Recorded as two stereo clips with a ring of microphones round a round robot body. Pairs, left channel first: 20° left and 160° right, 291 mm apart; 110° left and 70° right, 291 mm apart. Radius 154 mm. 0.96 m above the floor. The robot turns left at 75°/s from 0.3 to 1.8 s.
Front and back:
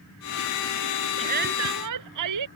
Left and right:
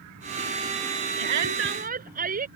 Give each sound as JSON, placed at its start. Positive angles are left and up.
{"t": 1.2, "sound": "a shout", "azimuth_deg": -85}